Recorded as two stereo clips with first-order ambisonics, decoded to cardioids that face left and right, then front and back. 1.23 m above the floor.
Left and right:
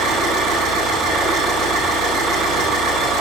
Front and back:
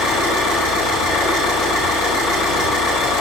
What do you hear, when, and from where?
0.0 s an engine running: 35° right, 5.5 m